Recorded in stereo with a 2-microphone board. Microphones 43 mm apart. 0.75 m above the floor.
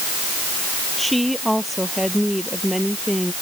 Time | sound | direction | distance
1.0 | a woman speaking | centre (ahead or behind) | ?